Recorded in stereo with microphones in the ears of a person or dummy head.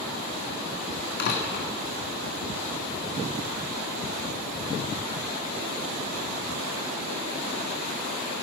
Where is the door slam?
50° left (ahead or behind), 1.9 m.